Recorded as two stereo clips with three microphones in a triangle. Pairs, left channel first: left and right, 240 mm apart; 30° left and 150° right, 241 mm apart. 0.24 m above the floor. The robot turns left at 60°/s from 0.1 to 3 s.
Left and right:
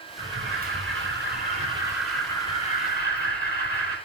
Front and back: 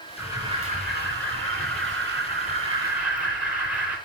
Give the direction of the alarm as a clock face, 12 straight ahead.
2 o'clock.